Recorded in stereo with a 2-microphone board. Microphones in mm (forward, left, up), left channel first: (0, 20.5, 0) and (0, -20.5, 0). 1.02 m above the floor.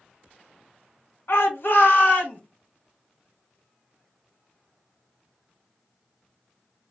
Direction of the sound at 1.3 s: 60° left (ahead or behind).